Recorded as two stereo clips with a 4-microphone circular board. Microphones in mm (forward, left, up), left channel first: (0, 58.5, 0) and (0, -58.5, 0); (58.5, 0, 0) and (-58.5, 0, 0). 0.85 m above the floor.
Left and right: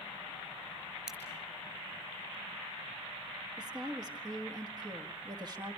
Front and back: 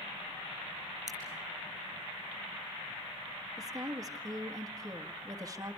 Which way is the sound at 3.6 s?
130° right.